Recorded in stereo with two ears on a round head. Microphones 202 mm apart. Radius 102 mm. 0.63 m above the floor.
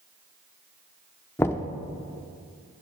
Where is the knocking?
10° left (ahead or behind), 0.6 m.